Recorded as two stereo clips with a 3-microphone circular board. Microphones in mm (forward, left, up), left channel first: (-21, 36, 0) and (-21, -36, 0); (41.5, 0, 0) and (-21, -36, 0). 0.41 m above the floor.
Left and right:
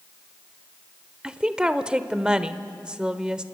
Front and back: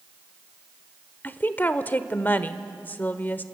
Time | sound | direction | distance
1.2 | a woman speaking | 20° right | 1.0 m